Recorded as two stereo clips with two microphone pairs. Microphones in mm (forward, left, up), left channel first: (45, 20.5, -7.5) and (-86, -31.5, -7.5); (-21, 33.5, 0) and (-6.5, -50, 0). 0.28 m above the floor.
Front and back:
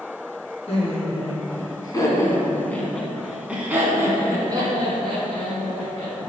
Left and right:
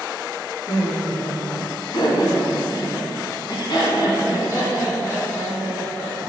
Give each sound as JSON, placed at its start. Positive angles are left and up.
{"t": 0.7, "sound": "laughter", "azimuth_deg": 60, "distance_m": 2.5}